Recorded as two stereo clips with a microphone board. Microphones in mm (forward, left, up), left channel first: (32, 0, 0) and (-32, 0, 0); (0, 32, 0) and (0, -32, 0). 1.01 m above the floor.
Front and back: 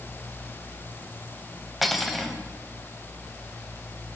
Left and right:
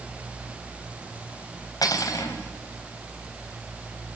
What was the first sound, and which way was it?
Cutlery clinking, 90° left.